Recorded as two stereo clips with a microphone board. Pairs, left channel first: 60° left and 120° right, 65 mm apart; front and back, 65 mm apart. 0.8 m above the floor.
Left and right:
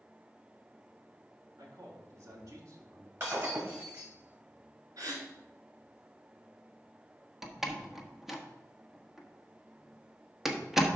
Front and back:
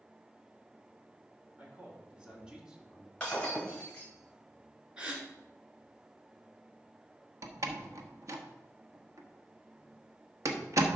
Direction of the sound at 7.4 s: 155° left.